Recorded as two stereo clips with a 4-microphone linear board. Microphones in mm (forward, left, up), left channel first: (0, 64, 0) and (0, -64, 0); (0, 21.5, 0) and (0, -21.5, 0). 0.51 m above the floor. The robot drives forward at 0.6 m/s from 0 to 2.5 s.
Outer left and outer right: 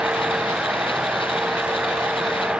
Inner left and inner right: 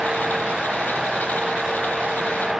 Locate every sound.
Only background noise.